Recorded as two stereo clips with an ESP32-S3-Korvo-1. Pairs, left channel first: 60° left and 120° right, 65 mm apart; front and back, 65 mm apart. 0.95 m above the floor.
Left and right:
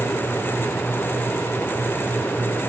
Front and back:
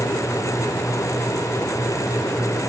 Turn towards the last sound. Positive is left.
No sound to turn to.